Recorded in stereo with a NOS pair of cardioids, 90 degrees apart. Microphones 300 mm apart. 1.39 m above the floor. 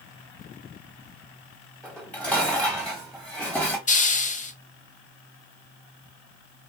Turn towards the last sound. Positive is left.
turn(degrees=25)